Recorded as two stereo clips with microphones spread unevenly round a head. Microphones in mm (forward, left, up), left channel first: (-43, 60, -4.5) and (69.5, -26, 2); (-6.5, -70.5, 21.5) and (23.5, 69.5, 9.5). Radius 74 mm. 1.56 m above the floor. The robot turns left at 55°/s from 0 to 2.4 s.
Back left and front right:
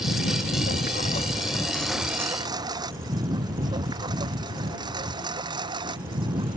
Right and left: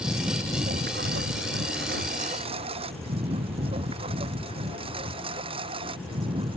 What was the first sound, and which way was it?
A lawn mower, 160° left.